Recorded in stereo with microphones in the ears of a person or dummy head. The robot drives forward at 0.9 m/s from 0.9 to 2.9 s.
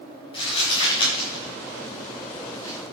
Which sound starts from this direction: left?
Crumpling, at 0.3 s.